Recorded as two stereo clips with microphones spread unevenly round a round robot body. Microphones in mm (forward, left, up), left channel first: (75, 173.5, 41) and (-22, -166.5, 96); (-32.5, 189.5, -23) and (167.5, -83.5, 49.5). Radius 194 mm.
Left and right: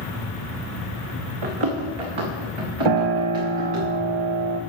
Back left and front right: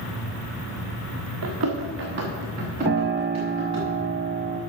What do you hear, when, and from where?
1.4 s running footsteps: 105° right, 2.5 m; by 3.9 s 130° right, 4.5 m
2.9 s a piano: 115° right, 0.5 m